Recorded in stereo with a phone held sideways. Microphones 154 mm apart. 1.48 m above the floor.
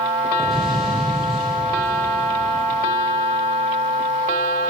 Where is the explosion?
5° right (ahead or behind), 7.5 m.